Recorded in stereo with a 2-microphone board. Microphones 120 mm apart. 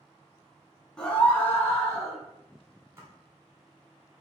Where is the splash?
20° right (ahead or behind), 1.6 m.